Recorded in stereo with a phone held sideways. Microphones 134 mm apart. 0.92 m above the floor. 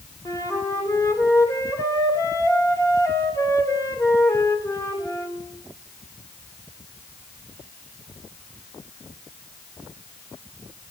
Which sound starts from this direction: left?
A flute, at 0.2 s.